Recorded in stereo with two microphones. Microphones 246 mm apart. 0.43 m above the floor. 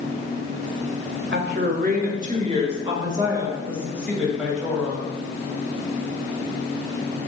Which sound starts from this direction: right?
A woman speaking, at 1.3 s.